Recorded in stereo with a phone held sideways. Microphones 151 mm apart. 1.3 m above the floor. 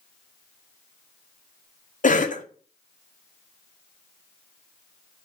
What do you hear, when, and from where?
2.0 s a cough: 60° left (ahead or behind), 0.5 m